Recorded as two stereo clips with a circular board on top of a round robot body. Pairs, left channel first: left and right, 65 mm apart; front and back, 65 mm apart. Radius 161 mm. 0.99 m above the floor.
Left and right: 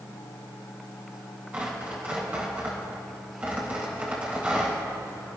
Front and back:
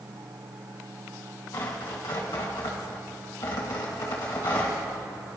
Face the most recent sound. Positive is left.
turn(degrees=-25)